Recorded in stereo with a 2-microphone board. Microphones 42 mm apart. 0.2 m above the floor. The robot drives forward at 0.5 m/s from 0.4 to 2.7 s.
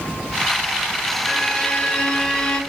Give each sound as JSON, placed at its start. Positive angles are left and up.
{"t": 1.3, "sound": "a violin", "side_deg": 25, "distance_m": 1.8}